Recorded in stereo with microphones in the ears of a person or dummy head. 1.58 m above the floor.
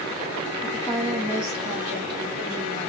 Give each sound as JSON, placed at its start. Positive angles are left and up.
{"t": 0.6, "sound": "a woman speaking", "side_deg": 20, "distance_m": 0.8}